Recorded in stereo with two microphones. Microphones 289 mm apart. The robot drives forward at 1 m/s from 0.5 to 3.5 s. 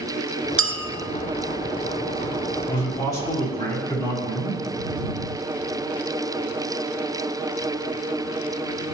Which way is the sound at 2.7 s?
15° left (ahead or behind).